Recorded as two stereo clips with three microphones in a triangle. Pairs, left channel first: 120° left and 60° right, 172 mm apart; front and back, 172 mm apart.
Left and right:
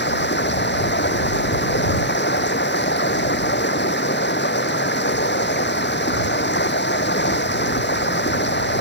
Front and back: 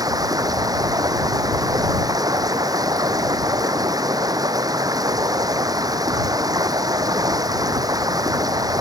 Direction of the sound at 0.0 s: 110° left.